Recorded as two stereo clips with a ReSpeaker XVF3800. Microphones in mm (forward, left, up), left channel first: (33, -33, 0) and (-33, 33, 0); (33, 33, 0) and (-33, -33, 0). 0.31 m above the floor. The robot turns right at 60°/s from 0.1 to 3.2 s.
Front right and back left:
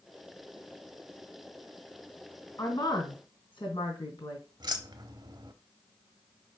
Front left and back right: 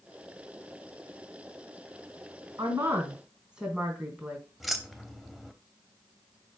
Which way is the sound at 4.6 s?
135° left.